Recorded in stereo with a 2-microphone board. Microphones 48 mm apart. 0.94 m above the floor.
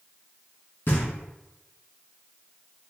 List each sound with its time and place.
0.9 s knocking: 55° left (ahead or behind), 1.3 m